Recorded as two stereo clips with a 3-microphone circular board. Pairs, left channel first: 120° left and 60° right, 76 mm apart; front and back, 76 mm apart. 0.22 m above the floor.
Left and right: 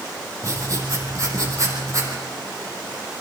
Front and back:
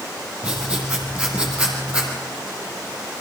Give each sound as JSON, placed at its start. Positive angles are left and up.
{"t": 0.4, "sound": "writing", "azimuth_deg": -105, "distance_m": 4.5}